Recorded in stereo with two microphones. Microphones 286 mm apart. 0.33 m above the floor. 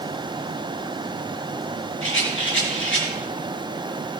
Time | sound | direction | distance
2.0 | a rattle | 45° left (ahead or behind) | 4 m